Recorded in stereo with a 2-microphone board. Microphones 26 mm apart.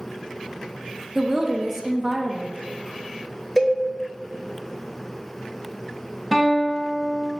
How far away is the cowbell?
About 0.8 m.